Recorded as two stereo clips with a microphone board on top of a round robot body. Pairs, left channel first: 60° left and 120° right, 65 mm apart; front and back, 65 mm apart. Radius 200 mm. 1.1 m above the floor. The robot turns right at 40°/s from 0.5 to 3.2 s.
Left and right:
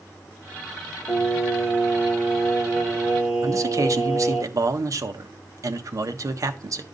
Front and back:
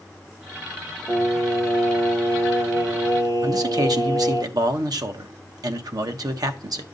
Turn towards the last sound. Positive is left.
turn(degrees=-160)